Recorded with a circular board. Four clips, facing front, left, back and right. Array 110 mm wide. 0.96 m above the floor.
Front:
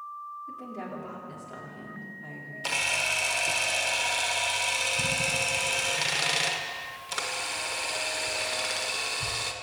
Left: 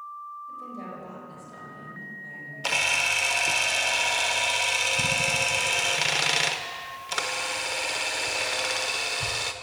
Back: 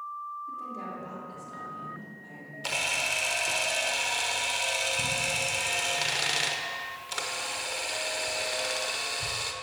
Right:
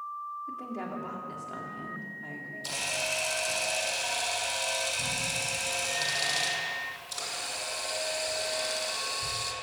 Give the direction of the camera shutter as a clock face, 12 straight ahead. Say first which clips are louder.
Left 7 dB, front 1 dB; 9 o'clock.